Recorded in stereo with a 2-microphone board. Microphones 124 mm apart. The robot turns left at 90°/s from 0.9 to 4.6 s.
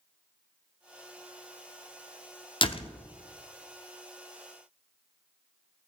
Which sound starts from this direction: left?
A door slam, at 2.6 s.